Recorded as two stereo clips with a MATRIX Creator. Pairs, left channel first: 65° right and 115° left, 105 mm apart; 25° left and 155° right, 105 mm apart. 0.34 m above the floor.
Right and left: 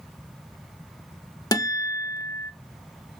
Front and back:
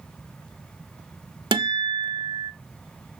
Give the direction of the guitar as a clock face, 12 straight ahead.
4 o'clock.